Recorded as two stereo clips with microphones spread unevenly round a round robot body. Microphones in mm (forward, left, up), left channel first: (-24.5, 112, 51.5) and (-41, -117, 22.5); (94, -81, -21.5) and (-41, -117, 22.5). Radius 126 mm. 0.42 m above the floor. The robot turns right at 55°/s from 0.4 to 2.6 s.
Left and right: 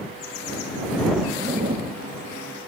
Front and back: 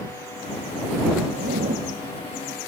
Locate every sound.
1.3 s a zipper: 170° right; by 1.9 s 135° right